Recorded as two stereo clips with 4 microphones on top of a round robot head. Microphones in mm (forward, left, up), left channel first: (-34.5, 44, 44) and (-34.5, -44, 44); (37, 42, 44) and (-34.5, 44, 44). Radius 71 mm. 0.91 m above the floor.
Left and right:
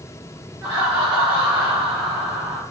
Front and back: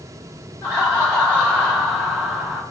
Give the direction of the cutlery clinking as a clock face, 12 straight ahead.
No cutlery clinking in this recording.